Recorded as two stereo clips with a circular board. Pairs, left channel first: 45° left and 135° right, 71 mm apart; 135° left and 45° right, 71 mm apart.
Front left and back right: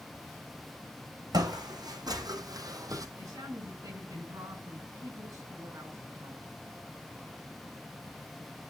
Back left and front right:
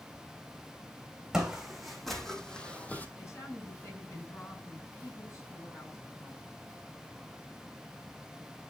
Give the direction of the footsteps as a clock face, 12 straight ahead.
4 o'clock.